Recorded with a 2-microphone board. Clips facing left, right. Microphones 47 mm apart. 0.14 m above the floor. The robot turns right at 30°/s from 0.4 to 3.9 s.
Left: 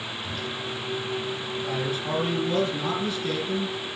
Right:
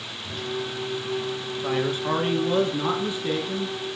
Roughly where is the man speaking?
Right.